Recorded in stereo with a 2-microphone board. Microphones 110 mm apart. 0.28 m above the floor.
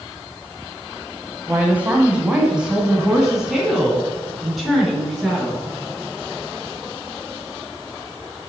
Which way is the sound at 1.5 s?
20° right (ahead or behind).